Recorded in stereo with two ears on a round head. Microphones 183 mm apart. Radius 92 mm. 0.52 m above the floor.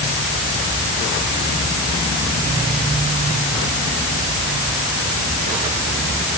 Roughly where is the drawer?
No drawer in this recording.